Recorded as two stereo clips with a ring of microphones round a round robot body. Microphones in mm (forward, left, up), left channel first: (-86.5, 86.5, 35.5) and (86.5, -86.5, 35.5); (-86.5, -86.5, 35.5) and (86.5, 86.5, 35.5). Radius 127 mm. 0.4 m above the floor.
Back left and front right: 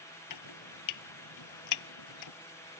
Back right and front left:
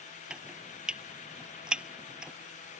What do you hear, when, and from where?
0.3 s chopping: 130° left